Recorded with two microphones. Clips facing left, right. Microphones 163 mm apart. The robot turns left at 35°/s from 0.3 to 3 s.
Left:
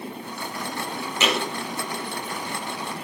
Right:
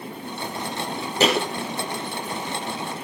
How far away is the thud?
About 2 m.